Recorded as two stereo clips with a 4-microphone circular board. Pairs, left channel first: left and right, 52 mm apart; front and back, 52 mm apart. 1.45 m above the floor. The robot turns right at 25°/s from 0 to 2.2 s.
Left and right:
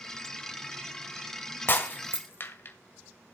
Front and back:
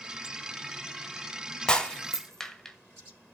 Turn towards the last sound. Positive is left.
turn(degrees=75)